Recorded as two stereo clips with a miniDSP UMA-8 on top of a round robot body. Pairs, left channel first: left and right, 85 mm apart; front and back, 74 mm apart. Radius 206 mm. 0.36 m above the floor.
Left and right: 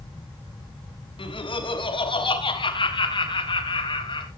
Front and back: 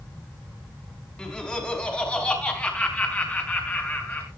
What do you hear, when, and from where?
1.2 s laughter: 75° left, 5.5 m; by 4.3 s 65° left, 7 m